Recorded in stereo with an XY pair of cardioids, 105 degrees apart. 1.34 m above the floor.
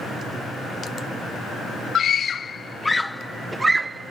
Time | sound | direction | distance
1.9 | a scream | 60° left | ?